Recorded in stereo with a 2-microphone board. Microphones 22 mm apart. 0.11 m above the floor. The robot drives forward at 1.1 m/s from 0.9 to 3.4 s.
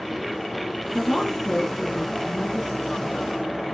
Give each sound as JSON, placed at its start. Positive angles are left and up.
{"t": 0.9, "sound": "a woman speaking", "side_deg": 20, "distance_m": 1.3}